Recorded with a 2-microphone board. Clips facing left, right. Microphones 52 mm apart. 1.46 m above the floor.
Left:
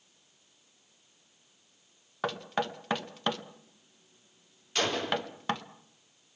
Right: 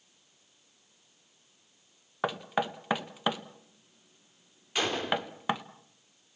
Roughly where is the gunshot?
Centre.